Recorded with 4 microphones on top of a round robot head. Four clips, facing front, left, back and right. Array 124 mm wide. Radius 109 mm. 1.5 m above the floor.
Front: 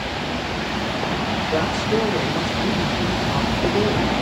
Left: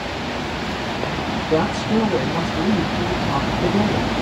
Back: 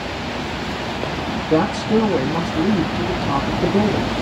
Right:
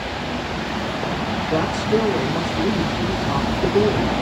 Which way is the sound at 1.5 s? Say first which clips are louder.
Left 1 dB, back 6 dB; 165° left.